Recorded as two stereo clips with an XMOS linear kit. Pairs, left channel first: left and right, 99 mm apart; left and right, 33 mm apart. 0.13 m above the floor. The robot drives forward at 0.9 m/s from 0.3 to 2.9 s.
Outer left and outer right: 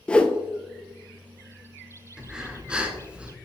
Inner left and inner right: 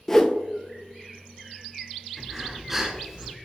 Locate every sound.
0.1 s a whoosh: 10° left (ahead or behind), 0.6 m
2.2 s breathing: 10° right (ahead or behind), 1.3 m